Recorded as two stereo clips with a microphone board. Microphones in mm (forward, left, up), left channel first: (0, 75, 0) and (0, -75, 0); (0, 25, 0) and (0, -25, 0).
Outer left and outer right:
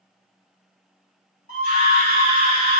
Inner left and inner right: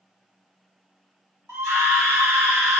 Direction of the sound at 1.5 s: 75° right (ahead or behind).